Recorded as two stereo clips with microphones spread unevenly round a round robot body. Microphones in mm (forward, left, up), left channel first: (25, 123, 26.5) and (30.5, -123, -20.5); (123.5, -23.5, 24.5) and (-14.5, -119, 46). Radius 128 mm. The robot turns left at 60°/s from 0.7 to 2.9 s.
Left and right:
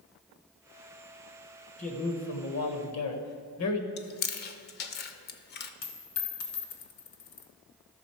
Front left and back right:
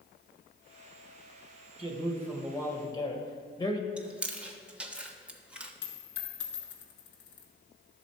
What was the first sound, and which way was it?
A man speaking, 160° left.